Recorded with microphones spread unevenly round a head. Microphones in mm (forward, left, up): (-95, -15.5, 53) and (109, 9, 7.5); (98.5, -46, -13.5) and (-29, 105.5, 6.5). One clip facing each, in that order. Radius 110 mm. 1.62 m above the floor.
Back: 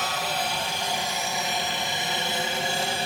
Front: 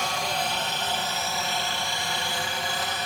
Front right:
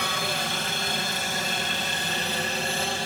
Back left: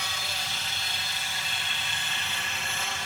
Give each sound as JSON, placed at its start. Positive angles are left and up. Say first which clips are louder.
{"t": 0.0, "sound": "a helicopter", "louder": "even, front right 9 dB", "azimuth_deg": -80}